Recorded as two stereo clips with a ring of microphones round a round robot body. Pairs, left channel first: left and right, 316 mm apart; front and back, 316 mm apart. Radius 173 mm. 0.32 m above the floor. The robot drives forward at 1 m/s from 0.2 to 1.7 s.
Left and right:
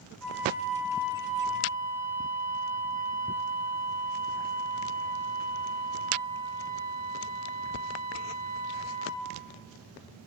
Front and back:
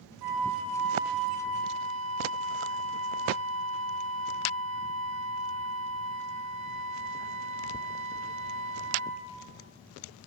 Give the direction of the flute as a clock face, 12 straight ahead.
6 o'clock.